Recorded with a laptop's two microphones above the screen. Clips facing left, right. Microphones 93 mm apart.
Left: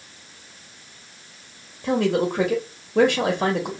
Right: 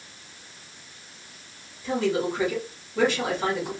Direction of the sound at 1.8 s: 75° left (ahead or behind).